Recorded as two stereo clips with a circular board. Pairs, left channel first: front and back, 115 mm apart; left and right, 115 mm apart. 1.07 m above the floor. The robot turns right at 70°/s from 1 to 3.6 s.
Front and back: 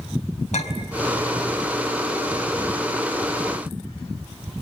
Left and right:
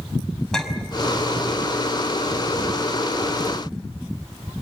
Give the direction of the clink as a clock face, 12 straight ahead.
12 o'clock.